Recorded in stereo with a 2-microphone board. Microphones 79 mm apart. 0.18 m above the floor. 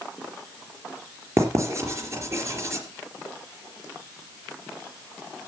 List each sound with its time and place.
1.4 s writing: 40° right (ahead or behind), 3.5 m